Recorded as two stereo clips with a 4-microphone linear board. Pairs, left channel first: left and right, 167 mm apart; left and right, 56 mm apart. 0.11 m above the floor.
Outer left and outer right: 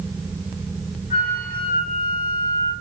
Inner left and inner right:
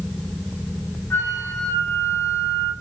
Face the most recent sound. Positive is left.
turn(degrees=60)  # may be behind; listen again after turning